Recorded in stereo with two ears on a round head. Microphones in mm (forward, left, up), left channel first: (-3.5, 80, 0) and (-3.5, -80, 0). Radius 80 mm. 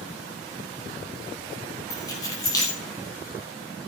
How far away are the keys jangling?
About 5 m.